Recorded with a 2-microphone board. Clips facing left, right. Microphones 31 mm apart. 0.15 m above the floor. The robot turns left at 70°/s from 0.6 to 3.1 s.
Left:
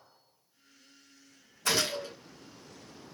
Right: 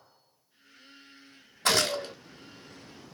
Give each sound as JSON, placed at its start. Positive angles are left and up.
{"t": 1.6, "sound": "a gunshot", "azimuth_deg": -80, "distance_m": 1.3}